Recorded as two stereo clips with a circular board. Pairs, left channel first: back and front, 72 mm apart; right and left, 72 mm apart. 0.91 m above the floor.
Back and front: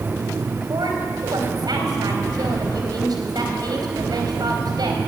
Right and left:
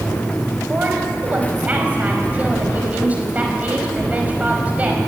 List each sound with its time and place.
0.7 s a woman speaking: 20° left, 5 m